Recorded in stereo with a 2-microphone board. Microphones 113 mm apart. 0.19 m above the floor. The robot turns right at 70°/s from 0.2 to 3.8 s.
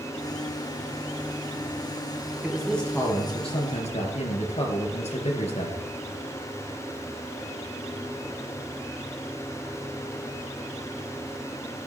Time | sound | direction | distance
2.4 | a man speaking | 15° right | 3 m